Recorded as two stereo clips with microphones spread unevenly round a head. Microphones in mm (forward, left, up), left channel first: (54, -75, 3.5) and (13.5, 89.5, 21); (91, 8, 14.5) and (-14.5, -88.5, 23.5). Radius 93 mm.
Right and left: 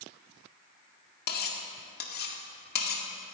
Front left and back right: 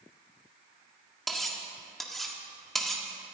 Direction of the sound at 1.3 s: 45° right.